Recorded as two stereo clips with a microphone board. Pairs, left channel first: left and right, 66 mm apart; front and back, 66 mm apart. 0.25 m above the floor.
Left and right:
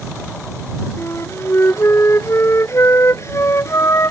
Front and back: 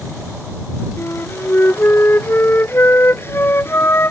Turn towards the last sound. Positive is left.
turn(degrees=50)